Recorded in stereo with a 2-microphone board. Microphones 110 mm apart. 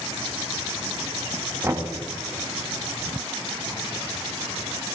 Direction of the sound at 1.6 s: 30° right (ahead or behind).